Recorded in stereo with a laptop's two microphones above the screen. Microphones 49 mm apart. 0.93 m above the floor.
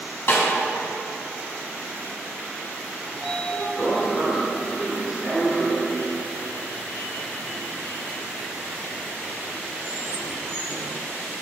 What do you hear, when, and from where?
0.3 s a snare drum: 55° left (ahead or behind), 1.9 m
3.1 s a sliding door: 20° left (ahead or behind), 2 m